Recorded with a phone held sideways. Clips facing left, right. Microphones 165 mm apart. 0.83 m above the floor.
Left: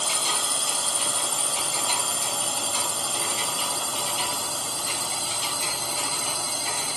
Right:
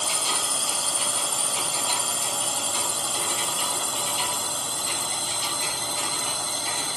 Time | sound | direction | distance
0.0 | a drone | 5° right (ahead or behind) | ?